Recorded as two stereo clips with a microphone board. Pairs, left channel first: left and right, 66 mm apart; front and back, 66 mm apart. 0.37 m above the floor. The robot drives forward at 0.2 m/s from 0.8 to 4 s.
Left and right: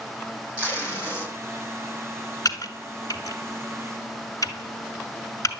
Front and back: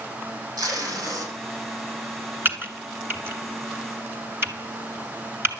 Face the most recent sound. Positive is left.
turn(degrees=130)